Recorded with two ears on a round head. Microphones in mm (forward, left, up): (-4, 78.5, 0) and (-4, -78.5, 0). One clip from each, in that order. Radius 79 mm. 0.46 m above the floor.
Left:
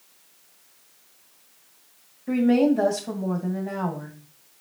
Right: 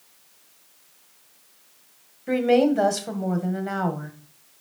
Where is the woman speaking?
65° right (ahead or behind), 2 m.